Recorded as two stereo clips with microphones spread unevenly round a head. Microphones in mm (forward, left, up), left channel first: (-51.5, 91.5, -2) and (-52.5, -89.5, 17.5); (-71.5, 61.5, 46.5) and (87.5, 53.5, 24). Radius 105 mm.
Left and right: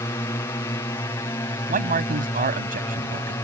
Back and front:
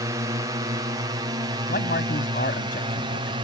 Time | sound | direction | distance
0.0 | a drone | 30° left | ?
1.7 | a man speaking | 130° right | ?